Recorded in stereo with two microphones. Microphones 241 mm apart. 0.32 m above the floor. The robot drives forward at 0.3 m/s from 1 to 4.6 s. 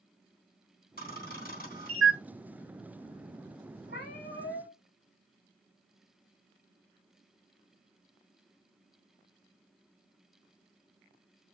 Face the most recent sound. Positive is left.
turn(degrees=40)  # may be behind; listen again after turning